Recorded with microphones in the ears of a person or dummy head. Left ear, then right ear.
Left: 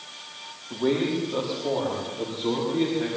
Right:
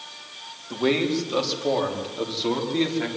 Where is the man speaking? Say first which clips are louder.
Right 2 dB; 75° right (ahead or behind), 4 m; by 3.1 s 50° right (ahead or behind), 5.5 m.